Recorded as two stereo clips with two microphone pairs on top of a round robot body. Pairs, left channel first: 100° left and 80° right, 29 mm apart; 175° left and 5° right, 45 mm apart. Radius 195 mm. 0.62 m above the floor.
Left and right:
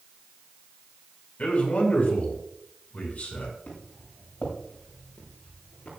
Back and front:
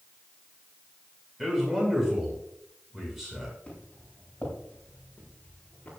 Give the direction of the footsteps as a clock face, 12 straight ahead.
8 o'clock.